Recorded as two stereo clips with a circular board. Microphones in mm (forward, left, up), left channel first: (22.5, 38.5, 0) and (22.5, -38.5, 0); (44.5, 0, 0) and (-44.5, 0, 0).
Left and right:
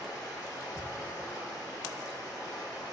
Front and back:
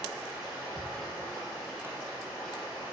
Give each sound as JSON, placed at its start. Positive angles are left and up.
{"t": 0.0, "sound": "running water", "azimuth_deg": 95, "distance_m": 1.8}